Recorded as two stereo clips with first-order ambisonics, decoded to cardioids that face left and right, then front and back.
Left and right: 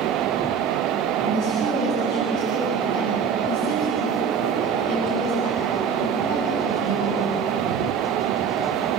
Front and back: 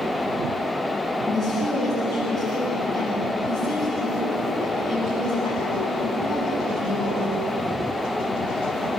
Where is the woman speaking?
100° left, 7 m.